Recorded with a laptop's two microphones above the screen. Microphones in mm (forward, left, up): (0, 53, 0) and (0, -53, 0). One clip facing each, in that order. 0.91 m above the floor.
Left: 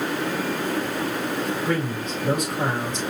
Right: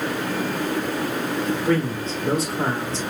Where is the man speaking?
35° right (ahead or behind), 2.5 m.